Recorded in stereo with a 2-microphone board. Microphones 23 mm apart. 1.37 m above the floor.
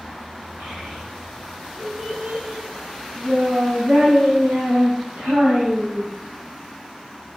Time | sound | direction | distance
0.6 | a child speaking | 60° right (ahead or behind) | 6.5 m